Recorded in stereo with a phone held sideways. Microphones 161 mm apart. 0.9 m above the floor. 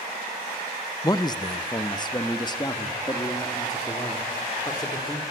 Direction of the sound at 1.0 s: 25° left (ahead or behind).